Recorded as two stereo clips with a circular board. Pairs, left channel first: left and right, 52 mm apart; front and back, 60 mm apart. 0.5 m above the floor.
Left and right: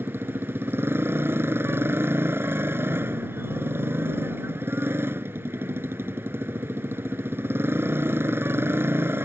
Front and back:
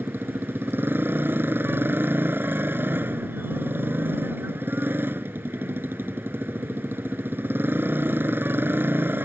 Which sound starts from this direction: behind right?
A motorcycle, at 0.0 s.